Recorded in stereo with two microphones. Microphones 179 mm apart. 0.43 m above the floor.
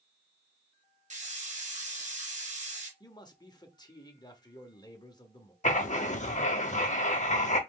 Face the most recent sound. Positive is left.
turn(degrees=40)  # may be behind; listen again after turning